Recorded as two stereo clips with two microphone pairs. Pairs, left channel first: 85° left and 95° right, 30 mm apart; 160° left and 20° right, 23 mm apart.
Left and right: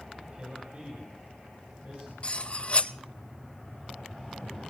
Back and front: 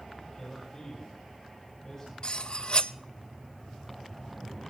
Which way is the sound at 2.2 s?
120° left.